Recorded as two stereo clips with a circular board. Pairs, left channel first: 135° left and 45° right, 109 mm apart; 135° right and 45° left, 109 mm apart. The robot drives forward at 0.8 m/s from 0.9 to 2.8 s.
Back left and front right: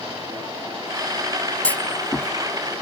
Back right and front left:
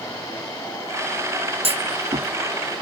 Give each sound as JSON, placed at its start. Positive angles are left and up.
{"t": 1.6, "sound": "a clunk", "azimuth_deg": 60}